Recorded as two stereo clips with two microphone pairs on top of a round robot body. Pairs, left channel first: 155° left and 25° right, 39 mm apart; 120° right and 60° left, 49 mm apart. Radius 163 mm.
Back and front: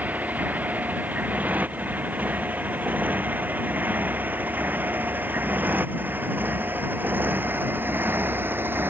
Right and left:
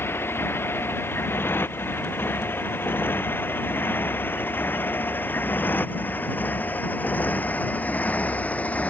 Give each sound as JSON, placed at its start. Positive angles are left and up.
{"t": 0.0, "sound": "a motorcycle", "azimuth_deg": -80}